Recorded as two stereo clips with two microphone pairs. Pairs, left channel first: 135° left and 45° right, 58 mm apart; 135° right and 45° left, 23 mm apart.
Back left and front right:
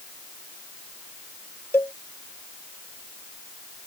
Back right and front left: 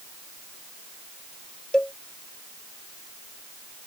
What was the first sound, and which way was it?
A cowbell, straight behind.